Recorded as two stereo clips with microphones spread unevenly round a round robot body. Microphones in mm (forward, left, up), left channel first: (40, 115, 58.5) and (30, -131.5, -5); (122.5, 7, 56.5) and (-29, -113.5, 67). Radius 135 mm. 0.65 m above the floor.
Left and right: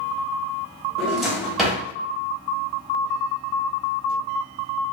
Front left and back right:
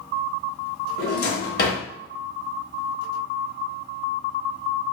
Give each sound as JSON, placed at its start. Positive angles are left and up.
{"t": 1.0, "sound": "a drawer", "azimuth_deg": 0, "distance_m": 1.0}